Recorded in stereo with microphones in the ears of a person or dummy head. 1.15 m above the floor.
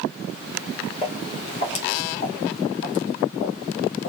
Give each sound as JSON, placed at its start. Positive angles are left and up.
{"t": 1.0, "sound": "footsteps", "side_deg": 30, "distance_m": 2.5}